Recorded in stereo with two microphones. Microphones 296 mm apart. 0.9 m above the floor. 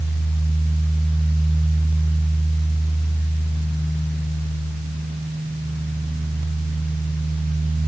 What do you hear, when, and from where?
Only background noise.